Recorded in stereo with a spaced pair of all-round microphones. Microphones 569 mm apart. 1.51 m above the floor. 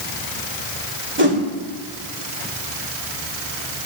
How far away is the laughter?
I don't hear laughter.